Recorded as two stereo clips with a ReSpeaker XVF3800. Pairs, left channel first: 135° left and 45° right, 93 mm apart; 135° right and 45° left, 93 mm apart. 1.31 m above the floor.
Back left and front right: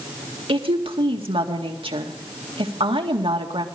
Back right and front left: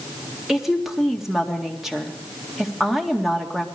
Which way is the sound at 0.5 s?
40° right.